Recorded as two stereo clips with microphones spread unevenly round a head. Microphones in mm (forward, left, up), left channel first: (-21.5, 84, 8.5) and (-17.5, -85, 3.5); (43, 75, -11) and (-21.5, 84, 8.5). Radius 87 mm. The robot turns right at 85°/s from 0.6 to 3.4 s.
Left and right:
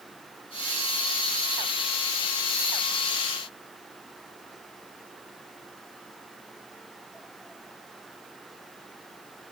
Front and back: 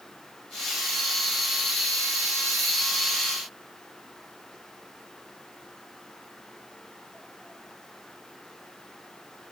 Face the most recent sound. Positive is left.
No sound to turn to.